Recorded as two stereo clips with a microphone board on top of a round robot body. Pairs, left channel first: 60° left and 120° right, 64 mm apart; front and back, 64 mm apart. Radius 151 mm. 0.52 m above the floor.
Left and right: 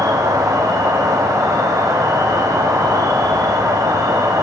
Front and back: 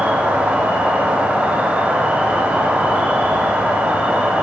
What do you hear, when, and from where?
0.0 s an insect: 115° right, 1.4 m